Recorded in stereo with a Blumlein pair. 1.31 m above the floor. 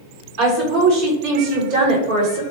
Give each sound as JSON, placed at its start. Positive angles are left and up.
{"t": 0.4, "sound": "a woman speaking", "azimuth_deg": -45, "distance_m": 1.8}